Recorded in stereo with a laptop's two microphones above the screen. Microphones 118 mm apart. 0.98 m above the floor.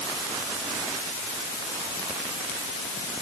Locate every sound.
Only background noise.